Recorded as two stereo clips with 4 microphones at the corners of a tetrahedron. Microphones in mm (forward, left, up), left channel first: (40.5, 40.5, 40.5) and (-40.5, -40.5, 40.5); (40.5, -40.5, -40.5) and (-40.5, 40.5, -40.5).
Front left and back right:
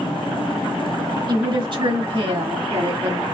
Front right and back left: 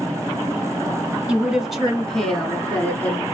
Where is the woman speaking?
150° right, 1.2 m; by 3.2 s 120° right, 2.0 m.